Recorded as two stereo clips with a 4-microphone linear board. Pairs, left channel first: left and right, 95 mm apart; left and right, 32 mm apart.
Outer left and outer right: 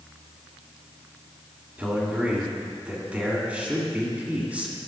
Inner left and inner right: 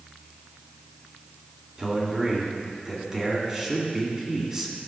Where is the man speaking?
15° right (ahead or behind), 1.9 m.